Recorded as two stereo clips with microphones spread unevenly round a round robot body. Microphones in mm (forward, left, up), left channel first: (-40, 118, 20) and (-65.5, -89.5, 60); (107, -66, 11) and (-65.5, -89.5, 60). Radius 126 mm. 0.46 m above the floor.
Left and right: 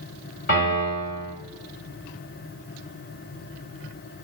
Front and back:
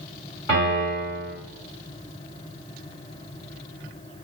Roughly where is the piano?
Ahead left.